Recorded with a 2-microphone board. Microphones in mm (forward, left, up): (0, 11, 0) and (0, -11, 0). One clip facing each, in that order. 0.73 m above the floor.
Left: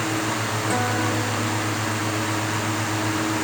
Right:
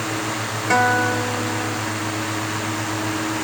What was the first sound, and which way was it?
A guitar, 50° right (ahead or behind).